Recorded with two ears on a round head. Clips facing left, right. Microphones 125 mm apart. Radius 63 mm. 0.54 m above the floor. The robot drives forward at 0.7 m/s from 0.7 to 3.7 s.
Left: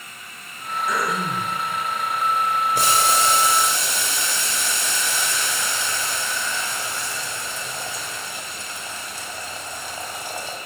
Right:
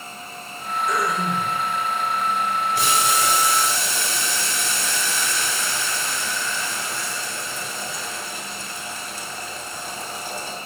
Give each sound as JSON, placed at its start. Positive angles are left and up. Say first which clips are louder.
{"t": 0.9, "sound": "throat clearing", "louder": "right 1 dB", "side_deg": 70, "distance_m": 1.4}
{"t": 2.8, "sound": "boiling", "louder": "left 2 dB", "side_deg": 40, "distance_m": 0.7}